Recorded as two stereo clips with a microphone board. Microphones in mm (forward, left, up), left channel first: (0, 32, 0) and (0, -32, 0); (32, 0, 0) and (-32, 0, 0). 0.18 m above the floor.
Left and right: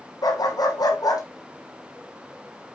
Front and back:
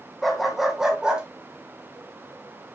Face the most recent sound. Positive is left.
turn(degrees=105)